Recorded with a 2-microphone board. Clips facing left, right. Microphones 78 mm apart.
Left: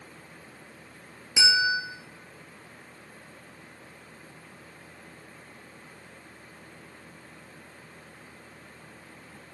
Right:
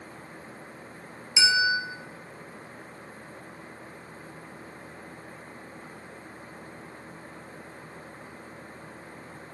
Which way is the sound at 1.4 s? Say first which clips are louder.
Right 1 dB; 50° left (ahead or behind).